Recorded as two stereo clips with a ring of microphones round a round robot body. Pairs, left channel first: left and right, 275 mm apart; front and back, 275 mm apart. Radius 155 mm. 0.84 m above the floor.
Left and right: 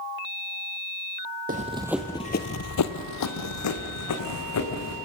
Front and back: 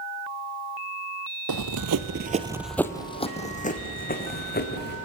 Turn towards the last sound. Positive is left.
turn(degrees=55)